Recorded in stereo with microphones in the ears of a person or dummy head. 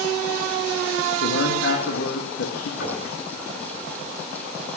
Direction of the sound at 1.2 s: 75° left (ahead or behind).